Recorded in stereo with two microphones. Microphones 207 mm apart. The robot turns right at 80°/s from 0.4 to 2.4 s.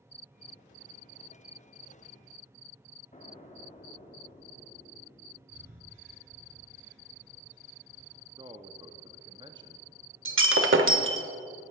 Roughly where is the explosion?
Left.